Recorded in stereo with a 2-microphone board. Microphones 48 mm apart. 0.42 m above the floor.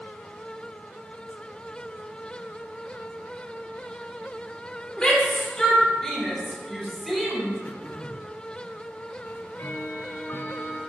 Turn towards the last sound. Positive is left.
turn(degrees=50)  # may be behind; listen again after turning